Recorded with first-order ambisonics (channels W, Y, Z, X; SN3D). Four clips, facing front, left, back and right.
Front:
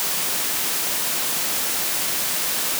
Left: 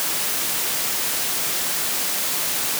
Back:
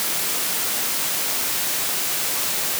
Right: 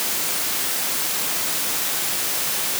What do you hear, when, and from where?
Only background noise.